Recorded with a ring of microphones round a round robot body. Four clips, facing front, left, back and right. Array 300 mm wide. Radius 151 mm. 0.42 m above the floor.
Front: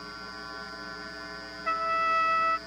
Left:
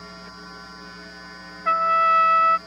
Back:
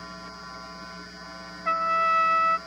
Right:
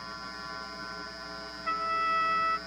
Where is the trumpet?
100° left.